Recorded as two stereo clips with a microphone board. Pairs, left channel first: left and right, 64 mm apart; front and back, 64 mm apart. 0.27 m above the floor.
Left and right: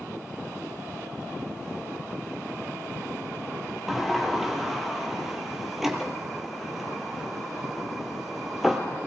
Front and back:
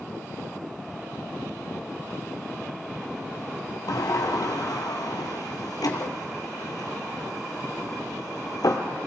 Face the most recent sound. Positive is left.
turn(degrees=-5)